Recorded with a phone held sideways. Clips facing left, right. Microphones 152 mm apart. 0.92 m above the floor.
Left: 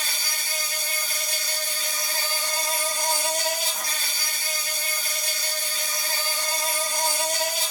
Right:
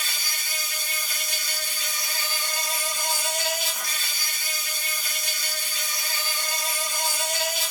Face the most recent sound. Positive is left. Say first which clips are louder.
# left 2 dB
turn(degrees=30)  # may be behind; listen again after turning